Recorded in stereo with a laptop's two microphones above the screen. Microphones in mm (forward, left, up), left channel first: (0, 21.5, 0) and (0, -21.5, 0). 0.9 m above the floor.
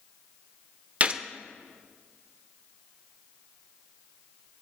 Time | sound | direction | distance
1.0 | a gunshot | 35° right (ahead or behind) | 0.6 m